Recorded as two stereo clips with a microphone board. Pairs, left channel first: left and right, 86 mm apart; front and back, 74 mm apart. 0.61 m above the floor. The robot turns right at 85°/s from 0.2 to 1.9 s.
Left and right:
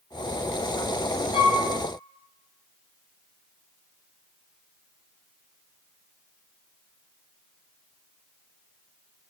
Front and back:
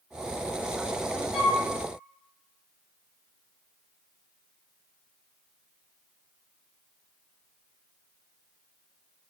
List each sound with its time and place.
1.3 s a flute: 90° left, 0.7 m; by 1.6 s 115° left, 0.7 m